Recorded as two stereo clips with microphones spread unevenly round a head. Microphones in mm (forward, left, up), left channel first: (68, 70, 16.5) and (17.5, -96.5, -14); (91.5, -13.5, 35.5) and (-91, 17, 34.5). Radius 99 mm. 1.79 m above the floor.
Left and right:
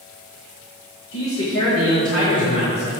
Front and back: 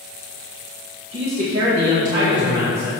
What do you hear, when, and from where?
1.1 s a man speaking: 110° left, 2.5 m; by 2.9 s 125° left, 3.5 m